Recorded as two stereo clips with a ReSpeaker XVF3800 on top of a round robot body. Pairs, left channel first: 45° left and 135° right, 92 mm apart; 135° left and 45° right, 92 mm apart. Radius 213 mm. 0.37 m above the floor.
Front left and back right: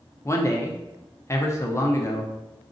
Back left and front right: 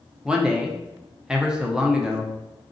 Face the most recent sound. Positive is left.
turn(degrees=30)